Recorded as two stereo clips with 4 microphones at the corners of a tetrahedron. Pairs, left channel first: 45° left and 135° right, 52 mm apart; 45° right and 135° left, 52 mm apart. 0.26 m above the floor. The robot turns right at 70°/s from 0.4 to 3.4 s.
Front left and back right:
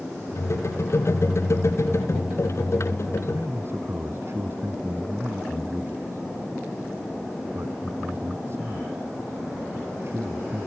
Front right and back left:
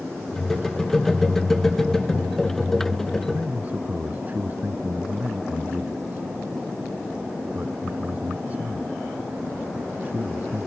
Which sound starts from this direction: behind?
A man speaking, at 3.3 s.